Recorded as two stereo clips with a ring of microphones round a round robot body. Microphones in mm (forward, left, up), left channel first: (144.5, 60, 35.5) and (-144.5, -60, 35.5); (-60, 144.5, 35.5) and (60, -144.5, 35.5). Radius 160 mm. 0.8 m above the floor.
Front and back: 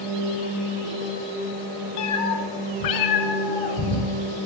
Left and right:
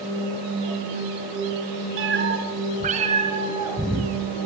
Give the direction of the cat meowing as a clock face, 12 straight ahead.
1 o'clock.